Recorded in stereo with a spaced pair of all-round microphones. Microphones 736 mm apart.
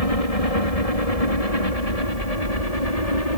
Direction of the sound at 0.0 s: 50° left (ahead or behind).